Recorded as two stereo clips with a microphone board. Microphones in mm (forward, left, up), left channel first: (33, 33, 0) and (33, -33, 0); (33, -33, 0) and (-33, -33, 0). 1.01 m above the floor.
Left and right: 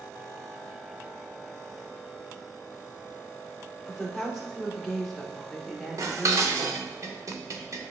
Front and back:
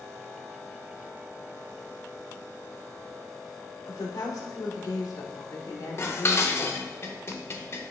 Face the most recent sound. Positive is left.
turn(degrees=-50)